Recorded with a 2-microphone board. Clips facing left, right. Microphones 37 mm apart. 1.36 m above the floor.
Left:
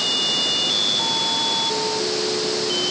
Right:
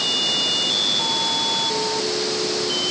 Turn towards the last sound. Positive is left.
No sound to turn to.